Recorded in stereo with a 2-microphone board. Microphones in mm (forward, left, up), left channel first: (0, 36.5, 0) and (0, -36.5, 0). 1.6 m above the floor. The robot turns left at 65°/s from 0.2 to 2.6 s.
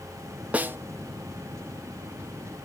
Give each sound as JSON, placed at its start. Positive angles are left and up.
{"t": 0.5, "sound": "a snare drum", "side_deg": -20, "distance_m": 0.5}